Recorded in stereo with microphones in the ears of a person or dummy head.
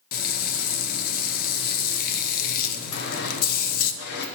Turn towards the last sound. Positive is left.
turn(degrees=70)  # may be behind; listen again after turning